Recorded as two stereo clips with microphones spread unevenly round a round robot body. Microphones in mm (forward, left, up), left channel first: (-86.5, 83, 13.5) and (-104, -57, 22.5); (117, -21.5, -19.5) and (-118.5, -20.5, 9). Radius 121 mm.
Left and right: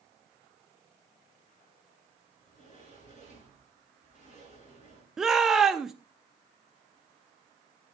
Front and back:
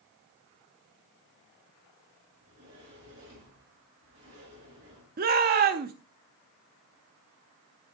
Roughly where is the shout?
Behind.